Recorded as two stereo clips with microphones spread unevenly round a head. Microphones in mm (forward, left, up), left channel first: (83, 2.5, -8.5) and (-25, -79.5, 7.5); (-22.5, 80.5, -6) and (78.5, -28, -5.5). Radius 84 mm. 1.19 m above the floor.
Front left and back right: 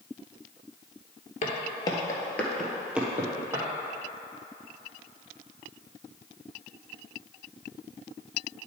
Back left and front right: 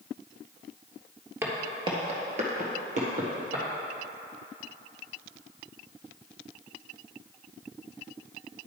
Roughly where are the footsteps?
Ahead.